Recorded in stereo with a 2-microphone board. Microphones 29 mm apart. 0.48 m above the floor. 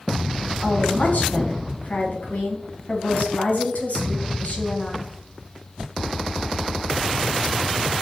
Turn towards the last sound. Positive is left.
turn(degrees=65)  # may be behind; listen again after turning